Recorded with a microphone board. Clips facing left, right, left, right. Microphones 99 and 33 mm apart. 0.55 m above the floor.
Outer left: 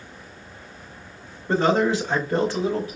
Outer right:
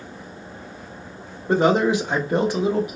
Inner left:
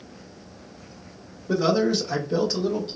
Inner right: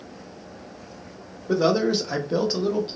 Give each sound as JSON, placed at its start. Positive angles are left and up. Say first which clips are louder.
{"t": 1.5, "sound": "a man speaking", "louder": "outer right 2 dB, inner right 1 dB", "side_deg": -15, "distance_m": 1.1}